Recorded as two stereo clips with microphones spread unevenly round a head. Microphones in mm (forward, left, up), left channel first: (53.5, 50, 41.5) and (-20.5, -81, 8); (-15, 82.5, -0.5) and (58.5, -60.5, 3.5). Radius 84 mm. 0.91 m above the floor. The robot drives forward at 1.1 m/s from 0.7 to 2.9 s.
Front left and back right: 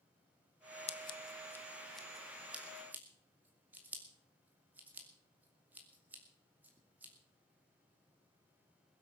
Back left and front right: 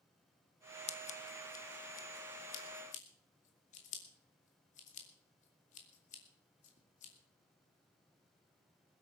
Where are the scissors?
105° left, 1.0 m; by 7.1 s 165° left, 2.5 m.